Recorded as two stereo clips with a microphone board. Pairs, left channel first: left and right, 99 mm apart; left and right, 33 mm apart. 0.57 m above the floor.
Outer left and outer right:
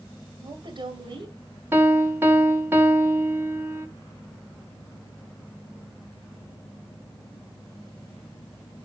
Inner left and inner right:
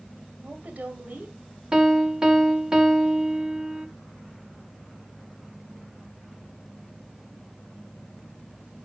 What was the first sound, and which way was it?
A woman speaking, 50° right (ahead or behind).